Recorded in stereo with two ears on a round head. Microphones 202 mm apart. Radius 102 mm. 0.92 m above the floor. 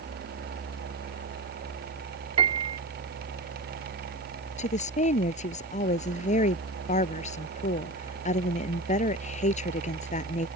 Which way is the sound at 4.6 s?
35° left (ahead or behind).